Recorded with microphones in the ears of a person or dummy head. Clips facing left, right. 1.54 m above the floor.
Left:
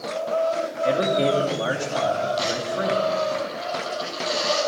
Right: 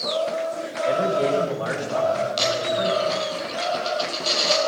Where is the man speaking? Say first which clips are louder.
Even; 45° left (ahead or behind), 3 m.